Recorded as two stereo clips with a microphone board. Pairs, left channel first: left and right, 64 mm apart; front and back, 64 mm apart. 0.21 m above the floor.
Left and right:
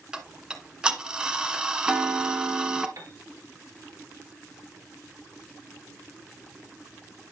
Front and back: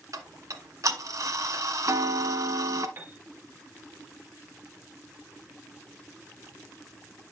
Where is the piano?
120° right, 1.8 m.